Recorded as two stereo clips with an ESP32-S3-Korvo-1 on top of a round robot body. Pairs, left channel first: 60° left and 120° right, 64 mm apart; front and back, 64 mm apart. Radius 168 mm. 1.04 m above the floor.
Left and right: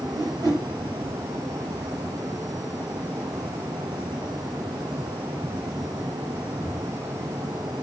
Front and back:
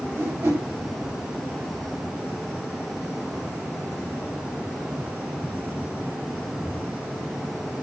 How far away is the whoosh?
About 6.5 m.